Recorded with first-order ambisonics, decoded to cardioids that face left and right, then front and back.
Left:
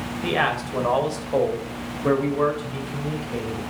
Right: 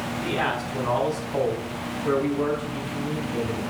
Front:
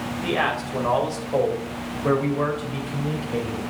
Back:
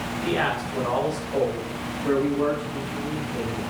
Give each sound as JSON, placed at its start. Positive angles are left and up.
{"t": 0.2, "sound": "a man speaking", "azimuth_deg": 75, "distance_m": 3.0}